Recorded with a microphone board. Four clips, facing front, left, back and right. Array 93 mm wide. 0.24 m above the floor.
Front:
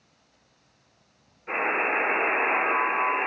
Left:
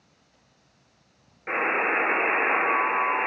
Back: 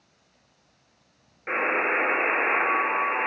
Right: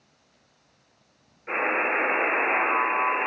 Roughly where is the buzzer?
Behind left.